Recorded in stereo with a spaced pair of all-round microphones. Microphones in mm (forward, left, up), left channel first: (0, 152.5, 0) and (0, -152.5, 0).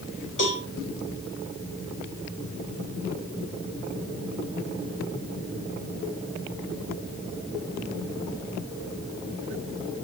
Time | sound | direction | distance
0.4 | a cowbell | 75° left (ahead or behind) | 2.5 m